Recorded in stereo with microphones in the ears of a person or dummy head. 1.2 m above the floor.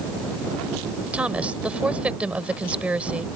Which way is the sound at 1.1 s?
5° right (ahead or behind).